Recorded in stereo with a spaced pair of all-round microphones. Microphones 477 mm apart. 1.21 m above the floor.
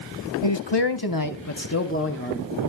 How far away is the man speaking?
About 1.1 m.